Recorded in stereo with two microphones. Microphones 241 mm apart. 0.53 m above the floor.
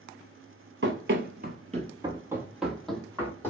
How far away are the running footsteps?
About 0.8 m.